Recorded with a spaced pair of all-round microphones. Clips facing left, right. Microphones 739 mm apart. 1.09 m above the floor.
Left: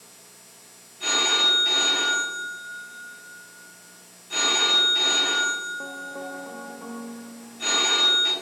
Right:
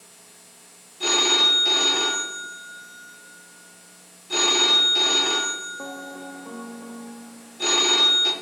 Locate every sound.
1.0 s a phone ringing: 70° right (ahead or behind), 0.7 m